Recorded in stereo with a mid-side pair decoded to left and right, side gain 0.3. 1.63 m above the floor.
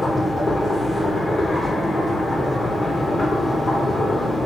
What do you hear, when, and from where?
0.0 s a machine running: 45° left, 1.1 m